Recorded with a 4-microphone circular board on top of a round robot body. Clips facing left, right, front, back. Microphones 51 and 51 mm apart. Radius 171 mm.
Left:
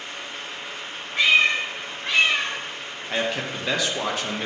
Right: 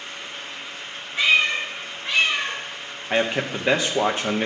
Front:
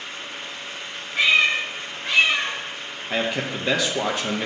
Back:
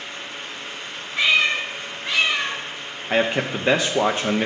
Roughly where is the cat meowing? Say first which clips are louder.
Left 1 dB, front 1 dB; ahead left.